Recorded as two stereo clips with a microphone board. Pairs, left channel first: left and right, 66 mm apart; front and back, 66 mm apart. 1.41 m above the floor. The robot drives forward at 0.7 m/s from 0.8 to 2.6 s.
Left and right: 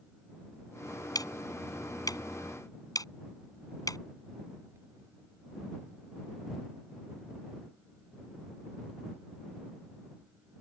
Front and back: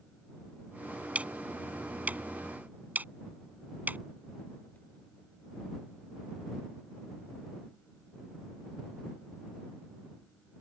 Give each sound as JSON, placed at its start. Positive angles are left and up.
{"t": 1.1, "sound": "ticking", "azimuth_deg": 110}